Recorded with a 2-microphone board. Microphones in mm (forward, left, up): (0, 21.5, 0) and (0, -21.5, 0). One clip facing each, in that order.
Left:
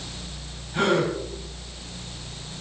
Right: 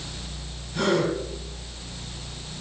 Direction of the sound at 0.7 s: 35° left (ahead or behind).